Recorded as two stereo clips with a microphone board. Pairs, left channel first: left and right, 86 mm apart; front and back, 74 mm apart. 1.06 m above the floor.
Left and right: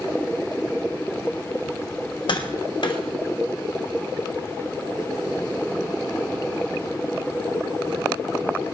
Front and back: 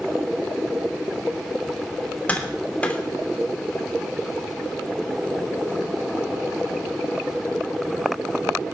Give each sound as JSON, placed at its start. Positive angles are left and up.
{"t": 2.3, "sound": "tapping", "azimuth_deg": 70, "distance_m": 3.0}